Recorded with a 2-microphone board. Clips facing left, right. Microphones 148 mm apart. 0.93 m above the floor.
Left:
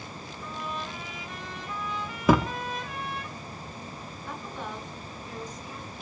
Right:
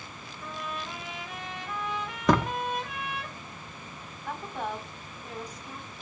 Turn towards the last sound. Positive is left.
turn(degrees=-70)  # may be behind; listen again after turning